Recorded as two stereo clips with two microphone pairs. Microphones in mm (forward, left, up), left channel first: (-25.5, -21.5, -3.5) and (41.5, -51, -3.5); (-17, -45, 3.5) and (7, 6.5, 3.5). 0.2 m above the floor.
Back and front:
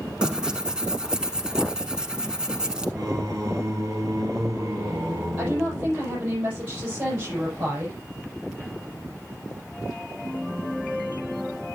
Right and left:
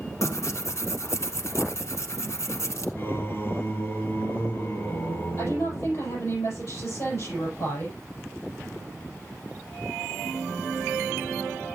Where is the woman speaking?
85° right, 7 m.